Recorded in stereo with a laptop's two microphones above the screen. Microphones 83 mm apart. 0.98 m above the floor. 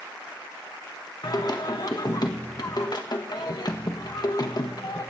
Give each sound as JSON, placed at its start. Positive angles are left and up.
{"t": 1.2, "sound": "singing", "side_deg": 55, "distance_m": 1.3}